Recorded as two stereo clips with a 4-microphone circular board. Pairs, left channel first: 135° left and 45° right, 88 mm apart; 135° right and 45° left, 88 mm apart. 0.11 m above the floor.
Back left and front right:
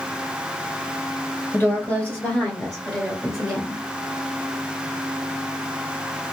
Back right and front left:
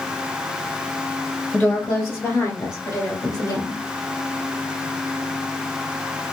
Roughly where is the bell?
No bell in this recording.